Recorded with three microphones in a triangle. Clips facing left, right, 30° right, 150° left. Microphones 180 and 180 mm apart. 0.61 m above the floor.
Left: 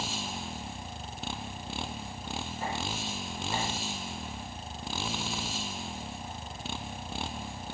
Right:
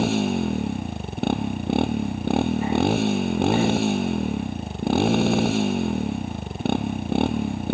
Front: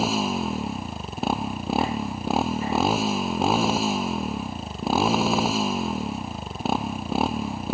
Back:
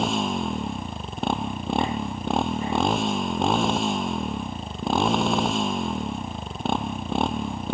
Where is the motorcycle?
115° right.